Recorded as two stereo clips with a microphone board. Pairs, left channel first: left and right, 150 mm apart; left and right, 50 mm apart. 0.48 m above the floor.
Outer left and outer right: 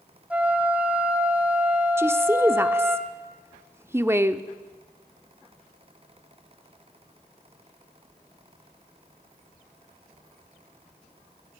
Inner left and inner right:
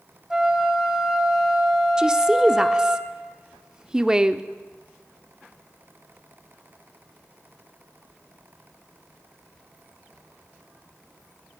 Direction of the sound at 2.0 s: 15° right (ahead or behind).